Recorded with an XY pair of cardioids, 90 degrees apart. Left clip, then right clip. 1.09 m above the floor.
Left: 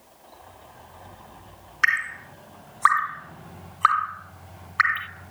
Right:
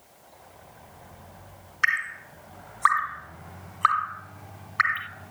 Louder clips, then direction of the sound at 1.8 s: Left 2 dB; 20° left.